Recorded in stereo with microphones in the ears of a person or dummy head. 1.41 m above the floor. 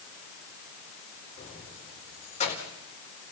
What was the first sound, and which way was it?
Keys jangling, 35° left (ahead or behind).